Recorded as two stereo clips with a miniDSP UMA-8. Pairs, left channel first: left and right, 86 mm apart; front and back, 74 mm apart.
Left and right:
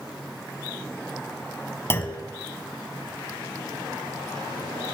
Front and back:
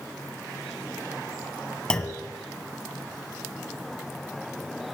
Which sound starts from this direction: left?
A clunk, at 1.9 s.